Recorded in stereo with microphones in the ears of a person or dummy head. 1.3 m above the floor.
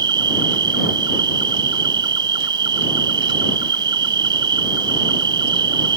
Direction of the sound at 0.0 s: 30° right (ahead or behind).